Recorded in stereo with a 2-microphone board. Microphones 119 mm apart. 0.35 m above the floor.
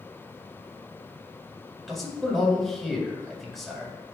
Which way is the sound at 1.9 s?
Centre (ahead or behind).